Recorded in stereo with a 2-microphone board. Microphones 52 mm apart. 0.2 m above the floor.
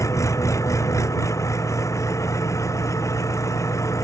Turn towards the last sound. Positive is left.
turn(degrees=75)  # may be behind; listen again after turning